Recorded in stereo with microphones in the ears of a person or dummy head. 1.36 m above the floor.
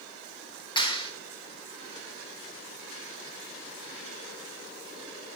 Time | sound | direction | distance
0.8 | a clap | 20° left (ahead or behind) | 1.5 m